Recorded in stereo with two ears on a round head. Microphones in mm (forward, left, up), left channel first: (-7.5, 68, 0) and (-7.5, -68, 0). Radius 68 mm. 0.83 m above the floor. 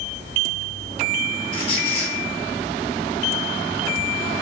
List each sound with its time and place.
1.5 s a squeak: 40° left (ahead or behind), 1.0 m